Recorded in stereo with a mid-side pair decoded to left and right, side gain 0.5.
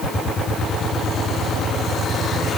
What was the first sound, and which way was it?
Only background noise.